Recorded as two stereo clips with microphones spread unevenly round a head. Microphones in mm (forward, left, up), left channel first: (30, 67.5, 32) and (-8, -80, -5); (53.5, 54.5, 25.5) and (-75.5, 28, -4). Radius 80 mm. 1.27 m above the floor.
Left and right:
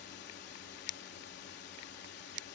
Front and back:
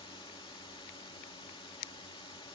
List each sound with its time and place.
0.0 s a drone: 65° left